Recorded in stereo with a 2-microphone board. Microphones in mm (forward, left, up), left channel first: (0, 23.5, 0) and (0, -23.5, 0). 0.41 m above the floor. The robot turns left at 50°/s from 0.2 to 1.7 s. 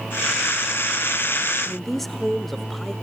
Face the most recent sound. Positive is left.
turn(degrees=5)  # may be behind; listen again after turning